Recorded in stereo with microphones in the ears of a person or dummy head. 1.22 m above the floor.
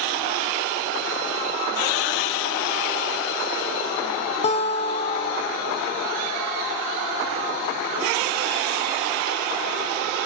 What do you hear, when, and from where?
4.4 s a guitar: 30° left (ahead or behind), 0.7 m